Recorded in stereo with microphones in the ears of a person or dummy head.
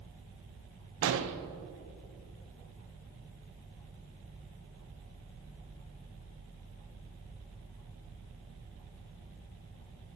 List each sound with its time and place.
1.0 s an explosion: 70° right (ahead or behind), 0.8 m